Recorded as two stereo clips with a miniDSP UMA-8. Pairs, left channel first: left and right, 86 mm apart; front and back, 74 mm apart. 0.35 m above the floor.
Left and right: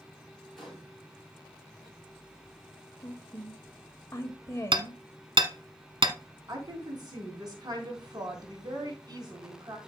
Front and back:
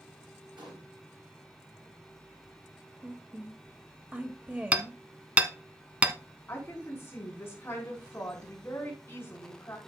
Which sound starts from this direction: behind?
A gunshot, at 0.6 s.